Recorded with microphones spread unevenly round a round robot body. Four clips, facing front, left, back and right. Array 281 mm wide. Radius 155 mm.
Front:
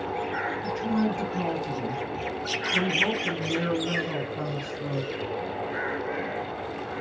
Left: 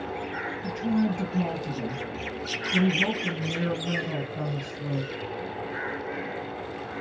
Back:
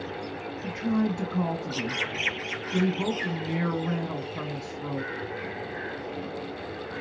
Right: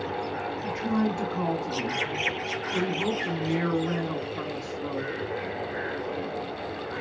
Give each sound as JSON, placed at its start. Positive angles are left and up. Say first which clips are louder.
{"t": 0.6, "sound": "a woman speaking", "louder": "left 1 dB, back 1 dB", "azimuth_deg": 155, "distance_m": 3.5}